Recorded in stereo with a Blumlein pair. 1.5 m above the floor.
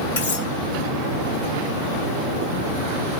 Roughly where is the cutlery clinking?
Ahead left.